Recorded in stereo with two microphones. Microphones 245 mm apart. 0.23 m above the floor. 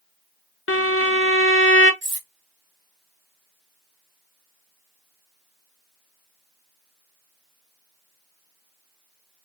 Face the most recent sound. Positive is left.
turn(degrees=-45)  # may be behind; listen again after turning